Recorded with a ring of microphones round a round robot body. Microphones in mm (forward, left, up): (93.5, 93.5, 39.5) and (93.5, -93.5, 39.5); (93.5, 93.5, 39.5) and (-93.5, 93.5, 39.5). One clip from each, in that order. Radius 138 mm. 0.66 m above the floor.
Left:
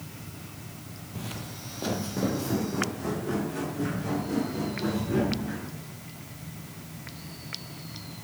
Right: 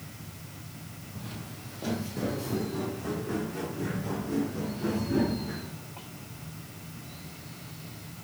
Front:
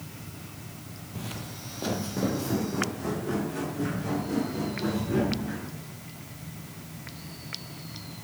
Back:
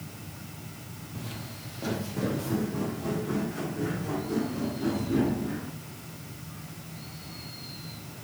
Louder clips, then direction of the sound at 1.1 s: Left 5 dB, front 3 dB; 60° left.